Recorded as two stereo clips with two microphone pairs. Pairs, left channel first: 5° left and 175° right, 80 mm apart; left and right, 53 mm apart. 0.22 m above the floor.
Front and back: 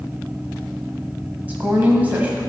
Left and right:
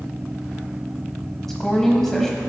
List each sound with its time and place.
1.5 s a woman speaking: 160° left, 1.0 m